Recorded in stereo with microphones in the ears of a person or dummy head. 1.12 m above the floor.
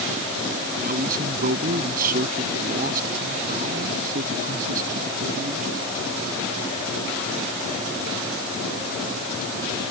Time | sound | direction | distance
0.8 | a man speaking | 45° right (ahead or behind) | ?